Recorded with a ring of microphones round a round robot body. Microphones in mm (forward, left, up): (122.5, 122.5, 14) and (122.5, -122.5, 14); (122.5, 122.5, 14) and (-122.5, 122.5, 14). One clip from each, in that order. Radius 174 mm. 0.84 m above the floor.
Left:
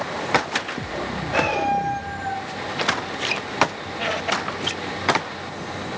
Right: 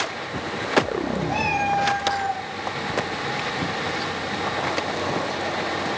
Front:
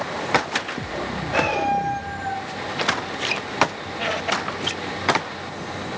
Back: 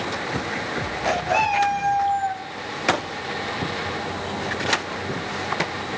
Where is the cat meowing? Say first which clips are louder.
Left 2 dB, even; 165° right, 1.5 m; by 2.5 s 175° left, 0.9 m.